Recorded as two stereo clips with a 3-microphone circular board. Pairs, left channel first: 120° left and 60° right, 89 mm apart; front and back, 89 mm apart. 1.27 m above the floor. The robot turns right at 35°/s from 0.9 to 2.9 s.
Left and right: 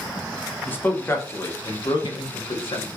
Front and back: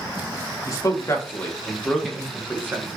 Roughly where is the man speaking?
Ahead left.